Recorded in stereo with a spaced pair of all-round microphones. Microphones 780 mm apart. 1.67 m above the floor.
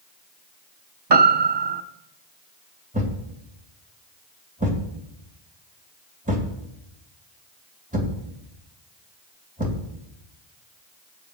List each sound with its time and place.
1.1 s a piano: 35° right (ahead or behind), 0.8 m
2.9 s a thud: 10° right (ahead or behind), 2.5 m